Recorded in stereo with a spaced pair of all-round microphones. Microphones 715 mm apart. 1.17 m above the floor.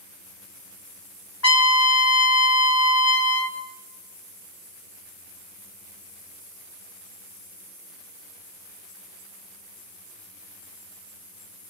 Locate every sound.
1.4 s a trumpet: 20° left (ahead or behind), 1.0 m